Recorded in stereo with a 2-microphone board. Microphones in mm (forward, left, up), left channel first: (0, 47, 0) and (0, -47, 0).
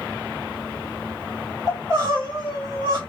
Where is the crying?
40° right (ahead or behind), 1.8 m.